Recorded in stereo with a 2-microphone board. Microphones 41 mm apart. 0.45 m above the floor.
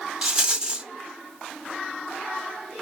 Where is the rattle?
25° right (ahead or behind), 1.3 m.